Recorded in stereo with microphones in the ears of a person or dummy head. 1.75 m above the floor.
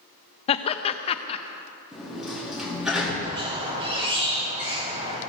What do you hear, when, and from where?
0.5 s laughter: 30° left (ahead or behind), 0.6 m
1.9 s a sliding door: centre (ahead or behind), 2.5 m
3.2 s a squeak: 35° right (ahead or behind), 2.5 m